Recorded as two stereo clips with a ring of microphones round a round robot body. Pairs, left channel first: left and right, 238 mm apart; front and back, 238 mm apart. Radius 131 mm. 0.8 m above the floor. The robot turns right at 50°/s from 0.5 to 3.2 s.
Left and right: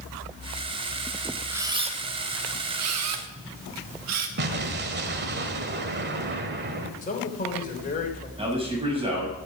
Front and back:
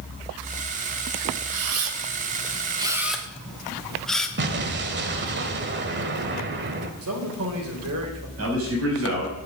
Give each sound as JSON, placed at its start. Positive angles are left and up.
{"t": 1.5, "sound": "a camera shutter", "azimuth_deg": -170, "distance_m": 1.4}
{"t": 4.4, "sound": "an explosion", "azimuth_deg": -135, "distance_m": 1.3}
{"t": 7.0, "sound": "a man speaking", "azimuth_deg": 145, "distance_m": 3.5}
{"t": 8.4, "sound": "a man speaking", "azimuth_deg": -155, "distance_m": 6.5}